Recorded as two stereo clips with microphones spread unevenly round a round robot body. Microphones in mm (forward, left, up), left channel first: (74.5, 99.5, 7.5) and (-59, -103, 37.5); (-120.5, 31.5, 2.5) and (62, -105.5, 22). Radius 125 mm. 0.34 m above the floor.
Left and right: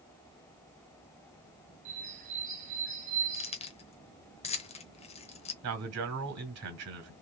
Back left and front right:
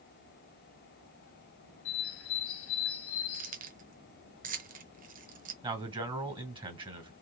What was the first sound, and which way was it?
A bird, 170° left.